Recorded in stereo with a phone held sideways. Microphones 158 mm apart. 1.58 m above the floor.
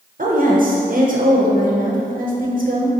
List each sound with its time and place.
0.2 s a woman speaking: 60° right (ahead or behind), 0.7 m